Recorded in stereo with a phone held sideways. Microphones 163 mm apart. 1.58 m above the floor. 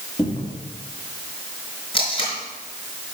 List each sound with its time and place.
0.2 s a cupboard door: 30° left (ahead or behind), 2 m
1.9 s tape being pulled: 30° left (ahead or behind), 5 m